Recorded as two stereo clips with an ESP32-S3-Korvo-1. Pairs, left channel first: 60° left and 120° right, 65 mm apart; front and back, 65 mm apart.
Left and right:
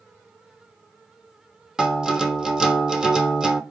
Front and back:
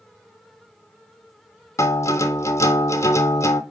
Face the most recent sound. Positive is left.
turn(degrees=-40)